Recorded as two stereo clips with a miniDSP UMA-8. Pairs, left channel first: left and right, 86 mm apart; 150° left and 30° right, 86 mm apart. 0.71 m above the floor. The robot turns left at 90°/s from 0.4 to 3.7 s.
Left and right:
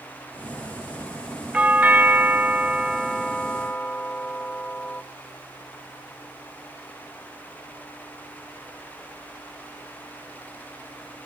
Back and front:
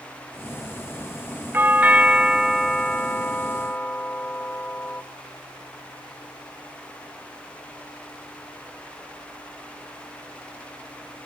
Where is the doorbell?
40° right, 0.9 m; by 5.0 s 130° left, 0.9 m.